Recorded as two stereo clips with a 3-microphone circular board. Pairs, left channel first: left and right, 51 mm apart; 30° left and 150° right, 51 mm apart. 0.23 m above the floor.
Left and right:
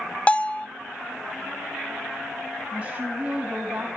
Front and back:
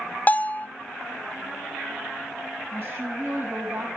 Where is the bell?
45° left, 0.6 m.